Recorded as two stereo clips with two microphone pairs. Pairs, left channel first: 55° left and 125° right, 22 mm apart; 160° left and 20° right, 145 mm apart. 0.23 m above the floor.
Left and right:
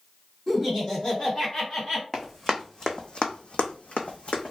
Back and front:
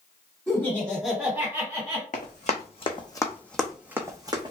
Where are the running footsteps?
135° left, 0.9 m; by 4.5 s 35° left, 0.8 m.